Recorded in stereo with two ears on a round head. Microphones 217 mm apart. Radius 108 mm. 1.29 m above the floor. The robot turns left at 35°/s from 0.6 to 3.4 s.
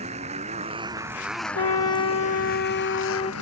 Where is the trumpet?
85° left; by 3.3 s 25° left.